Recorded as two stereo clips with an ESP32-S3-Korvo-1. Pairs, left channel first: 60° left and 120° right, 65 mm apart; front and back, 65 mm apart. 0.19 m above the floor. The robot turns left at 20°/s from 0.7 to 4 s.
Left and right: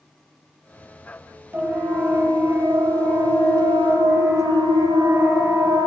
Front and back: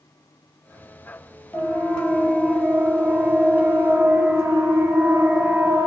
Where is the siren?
65° right, 6 m; by 5.9 s 140° right, 5 m.